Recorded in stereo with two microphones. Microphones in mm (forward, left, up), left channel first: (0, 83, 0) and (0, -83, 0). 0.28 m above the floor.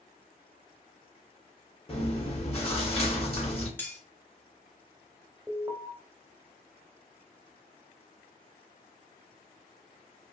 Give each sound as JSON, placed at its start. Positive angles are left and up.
{"t": 1.9, "sound": "chewing", "side_deg": 40, "distance_m": 1.6}
{"t": 3.8, "sound": "cutlery clinking", "side_deg": 15, "distance_m": 1.0}
{"t": 5.5, "sound": "an alarm", "side_deg": -15, "distance_m": 0.7}